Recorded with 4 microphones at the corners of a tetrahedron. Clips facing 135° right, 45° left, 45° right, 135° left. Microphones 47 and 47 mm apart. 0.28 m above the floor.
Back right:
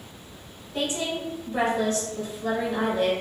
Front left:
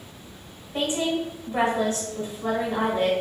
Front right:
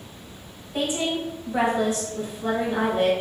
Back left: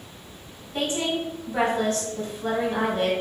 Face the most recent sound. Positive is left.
turn(degrees=10)